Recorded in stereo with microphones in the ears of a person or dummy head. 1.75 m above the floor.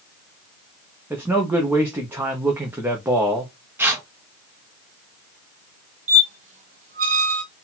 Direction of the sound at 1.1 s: 10° right (ahead or behind).